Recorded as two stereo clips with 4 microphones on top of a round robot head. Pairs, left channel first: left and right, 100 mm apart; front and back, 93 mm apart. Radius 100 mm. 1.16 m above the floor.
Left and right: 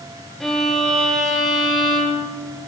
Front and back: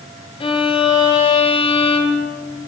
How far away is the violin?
About 1.4 m.